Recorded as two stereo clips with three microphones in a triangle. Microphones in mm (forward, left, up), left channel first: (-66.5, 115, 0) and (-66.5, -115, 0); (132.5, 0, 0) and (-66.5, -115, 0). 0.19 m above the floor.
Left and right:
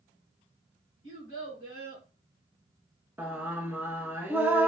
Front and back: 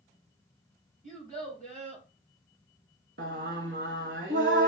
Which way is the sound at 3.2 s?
170° right.